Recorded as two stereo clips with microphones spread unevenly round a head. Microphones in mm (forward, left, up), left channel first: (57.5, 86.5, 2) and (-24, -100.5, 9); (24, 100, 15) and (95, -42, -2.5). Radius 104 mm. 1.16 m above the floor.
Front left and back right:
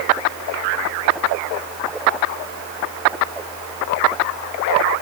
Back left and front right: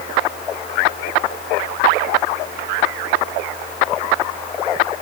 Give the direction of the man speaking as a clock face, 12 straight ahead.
I don't hear a man speaking.